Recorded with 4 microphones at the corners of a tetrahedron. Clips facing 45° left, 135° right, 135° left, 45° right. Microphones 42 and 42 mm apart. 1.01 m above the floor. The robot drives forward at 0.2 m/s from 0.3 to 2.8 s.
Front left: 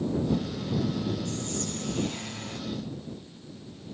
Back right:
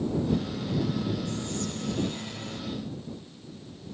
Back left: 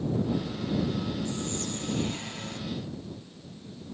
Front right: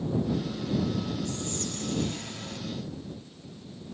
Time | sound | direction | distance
1.2 | whispering | 70° left | 1.0 m